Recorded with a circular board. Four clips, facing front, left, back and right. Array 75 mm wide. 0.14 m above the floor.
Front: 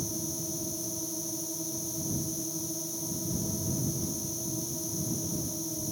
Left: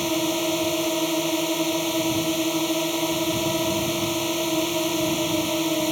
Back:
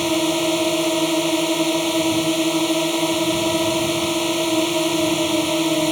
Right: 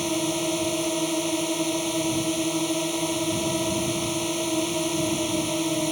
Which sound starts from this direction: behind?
A drone, at 0.0 s.